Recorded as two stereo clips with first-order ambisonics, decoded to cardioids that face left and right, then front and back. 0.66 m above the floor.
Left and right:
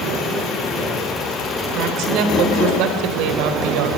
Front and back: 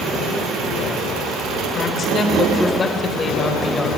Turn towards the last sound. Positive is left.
turn(degrees=-80)